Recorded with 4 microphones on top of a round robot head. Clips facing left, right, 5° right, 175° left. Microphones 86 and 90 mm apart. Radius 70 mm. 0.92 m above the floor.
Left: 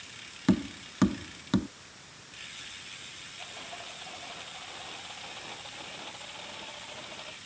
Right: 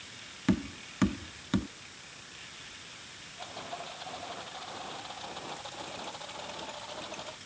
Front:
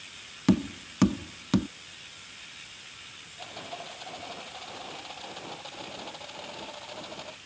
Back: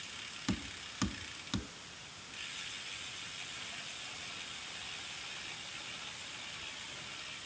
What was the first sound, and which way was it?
Tapping, 15° left.